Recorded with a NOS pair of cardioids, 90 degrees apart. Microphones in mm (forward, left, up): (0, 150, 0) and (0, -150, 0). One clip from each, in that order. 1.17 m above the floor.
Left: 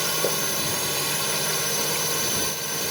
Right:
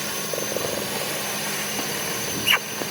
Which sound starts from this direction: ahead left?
A drone, at 0.0 s.